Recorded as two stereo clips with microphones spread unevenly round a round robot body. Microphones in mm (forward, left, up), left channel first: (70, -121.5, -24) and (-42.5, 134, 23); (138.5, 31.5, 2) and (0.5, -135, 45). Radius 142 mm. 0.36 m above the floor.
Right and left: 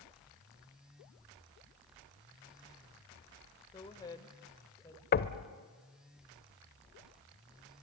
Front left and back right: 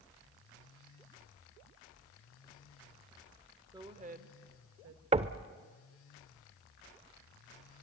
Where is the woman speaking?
55° right, 1.1 m; by 5.0 s 135° right, 1.8 m.